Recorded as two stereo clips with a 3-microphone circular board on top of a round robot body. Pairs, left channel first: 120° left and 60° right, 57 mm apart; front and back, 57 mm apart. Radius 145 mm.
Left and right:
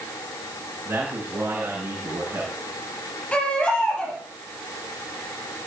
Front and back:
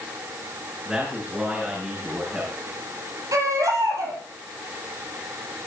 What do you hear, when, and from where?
0.8 s a man speaking: 115° right, 9 m
3.3 s a baby crying: 170° right, 6.5 m